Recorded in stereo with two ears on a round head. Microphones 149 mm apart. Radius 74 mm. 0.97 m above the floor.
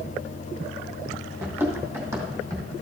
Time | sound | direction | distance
1.4 | running footsteps | 10° right (ahead or behind) | 2 m